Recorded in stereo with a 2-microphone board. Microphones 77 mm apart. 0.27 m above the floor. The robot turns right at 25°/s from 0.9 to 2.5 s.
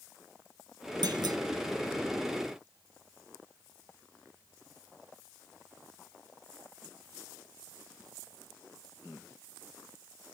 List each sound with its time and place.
1.0 s a clunk: 65° right (ahead or behind), 0.7 m